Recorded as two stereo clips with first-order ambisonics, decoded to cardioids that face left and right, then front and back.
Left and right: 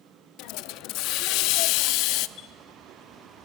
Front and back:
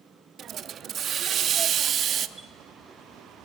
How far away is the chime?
About 0.7 m.